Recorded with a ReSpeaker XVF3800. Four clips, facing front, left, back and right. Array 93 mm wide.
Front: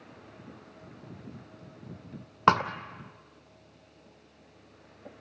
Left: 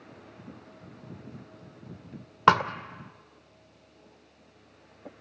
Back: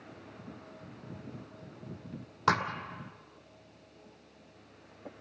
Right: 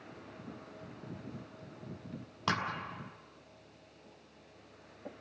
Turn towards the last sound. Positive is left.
turn(degrees=50)